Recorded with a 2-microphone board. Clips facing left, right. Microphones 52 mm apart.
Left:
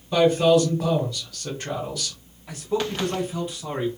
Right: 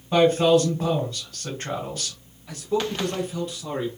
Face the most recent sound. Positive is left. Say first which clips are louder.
# right 1 dB
turn(degrees=15)  # may be behind; listen again after turning